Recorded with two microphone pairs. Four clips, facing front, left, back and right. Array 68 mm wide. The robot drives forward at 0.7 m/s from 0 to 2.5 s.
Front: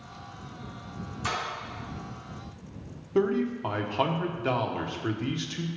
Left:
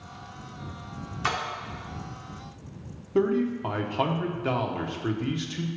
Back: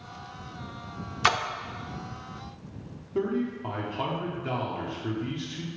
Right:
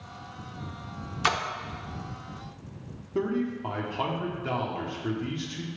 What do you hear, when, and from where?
1.2 s a splash: 165° right, 0.7 m
3.1 s a man speaking: 40° left, 0.9 m